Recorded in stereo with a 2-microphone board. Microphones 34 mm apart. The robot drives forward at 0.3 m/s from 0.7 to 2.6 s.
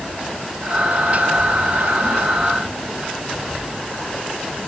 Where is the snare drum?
No snare drum in this recording.